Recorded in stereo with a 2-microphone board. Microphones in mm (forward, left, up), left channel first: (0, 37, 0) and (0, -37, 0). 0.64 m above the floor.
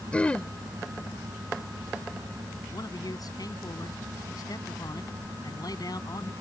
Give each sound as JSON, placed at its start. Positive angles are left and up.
{"t": 0.1, "sound": "throat clearing", "side_deg": 15}
{"t": 2.7, "sound": "a man speaking", "side_deg": 60}